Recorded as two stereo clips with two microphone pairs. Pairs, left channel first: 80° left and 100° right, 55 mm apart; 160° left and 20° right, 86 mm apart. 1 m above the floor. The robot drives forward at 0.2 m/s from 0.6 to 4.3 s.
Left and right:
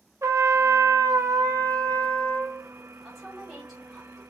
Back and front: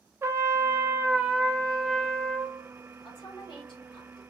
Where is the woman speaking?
175° left, 1.9 m.